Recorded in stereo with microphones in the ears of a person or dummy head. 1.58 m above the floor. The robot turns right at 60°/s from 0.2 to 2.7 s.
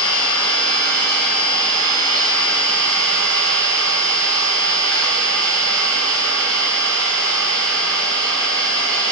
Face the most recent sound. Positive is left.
turn(degrees=-90)